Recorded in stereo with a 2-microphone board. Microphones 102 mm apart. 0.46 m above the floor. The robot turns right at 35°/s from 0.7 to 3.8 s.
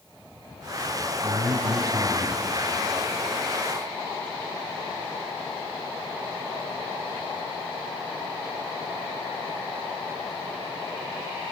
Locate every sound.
1.2 s a man speaking: 110° right, 2 m; by 2.4 s 70° right, 2 m